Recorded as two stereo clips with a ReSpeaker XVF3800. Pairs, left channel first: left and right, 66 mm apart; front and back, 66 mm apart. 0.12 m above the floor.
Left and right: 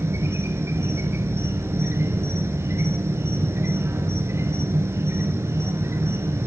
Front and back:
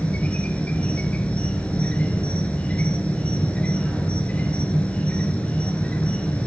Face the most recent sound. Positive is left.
turn(degrees=-65)